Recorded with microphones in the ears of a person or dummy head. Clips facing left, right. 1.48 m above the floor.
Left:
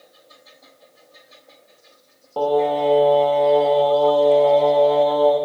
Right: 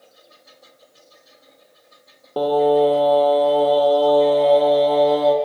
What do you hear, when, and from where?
2.4 s singing: 30° right (ahead or behind), 1.1 m